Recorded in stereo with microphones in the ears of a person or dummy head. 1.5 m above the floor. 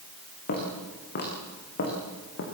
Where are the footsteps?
55° left (ahead or behind), 8 m.